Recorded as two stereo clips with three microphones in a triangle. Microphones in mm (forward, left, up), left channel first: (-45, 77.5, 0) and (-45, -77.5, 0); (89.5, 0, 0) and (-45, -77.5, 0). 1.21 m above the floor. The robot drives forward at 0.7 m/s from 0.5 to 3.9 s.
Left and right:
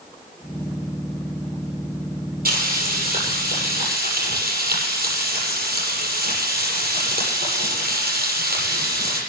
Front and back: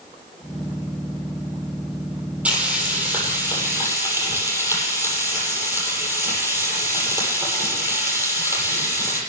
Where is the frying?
70° right, 7.5 m; by 9.2 s 75° right, 7 m.